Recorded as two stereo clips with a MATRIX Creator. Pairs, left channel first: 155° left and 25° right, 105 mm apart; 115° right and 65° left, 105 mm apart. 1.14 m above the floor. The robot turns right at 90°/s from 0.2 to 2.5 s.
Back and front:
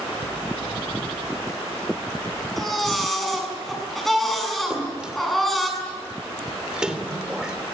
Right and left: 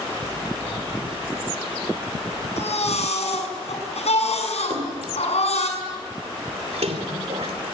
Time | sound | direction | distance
2.6 | a baby crying | 115° right | 7.5 m
4.7 | a splash | 60° left | 3 m